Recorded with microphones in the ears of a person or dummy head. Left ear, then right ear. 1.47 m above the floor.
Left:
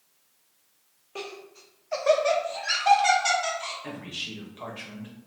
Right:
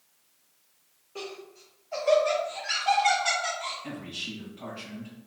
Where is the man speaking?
45° left (ahead or behind), 1.1 m.